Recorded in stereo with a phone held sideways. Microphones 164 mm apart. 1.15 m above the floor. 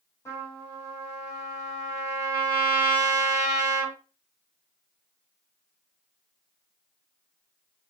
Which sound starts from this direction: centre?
A trumpet, at 0.2 s.